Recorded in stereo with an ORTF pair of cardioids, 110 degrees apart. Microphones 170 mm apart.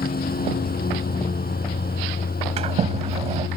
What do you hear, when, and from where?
0.0 s a lawn mower: 60° left
2.6 s a sliding door: 35° right